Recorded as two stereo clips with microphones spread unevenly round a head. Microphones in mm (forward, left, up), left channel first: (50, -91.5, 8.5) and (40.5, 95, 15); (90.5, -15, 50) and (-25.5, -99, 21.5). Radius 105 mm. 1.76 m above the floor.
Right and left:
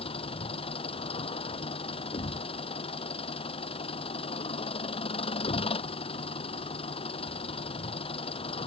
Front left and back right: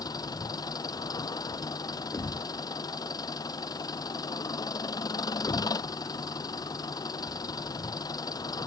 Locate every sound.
0.0 s an engine running: 25° right
2.1 s a thud: 25° right